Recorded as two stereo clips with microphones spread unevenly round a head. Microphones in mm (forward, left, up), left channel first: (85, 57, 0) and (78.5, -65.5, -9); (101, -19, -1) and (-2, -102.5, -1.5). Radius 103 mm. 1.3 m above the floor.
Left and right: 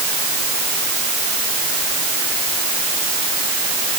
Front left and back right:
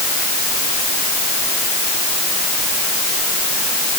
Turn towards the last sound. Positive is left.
No sound to turn to.